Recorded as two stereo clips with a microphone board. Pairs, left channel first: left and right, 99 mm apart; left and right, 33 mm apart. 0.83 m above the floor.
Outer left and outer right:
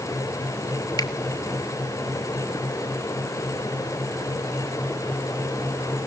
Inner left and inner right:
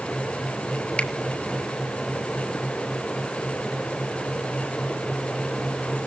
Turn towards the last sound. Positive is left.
turn(degrees=40)  # may be behind; listen again after turning